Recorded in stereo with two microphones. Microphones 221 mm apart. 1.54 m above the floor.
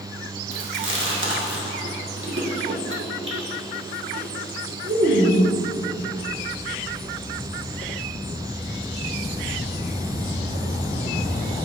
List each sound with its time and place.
0.5 s chewing: 60° right (ahead or behind), 1.7 m